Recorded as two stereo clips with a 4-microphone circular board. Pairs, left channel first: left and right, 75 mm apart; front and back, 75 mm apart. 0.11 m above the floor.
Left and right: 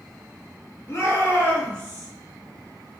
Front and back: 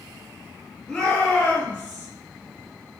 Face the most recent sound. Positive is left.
turn(degrees=5)